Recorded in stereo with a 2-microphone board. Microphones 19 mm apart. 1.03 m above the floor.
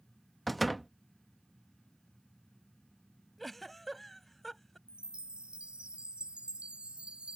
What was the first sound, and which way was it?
A door slam, centre (ahead or behind).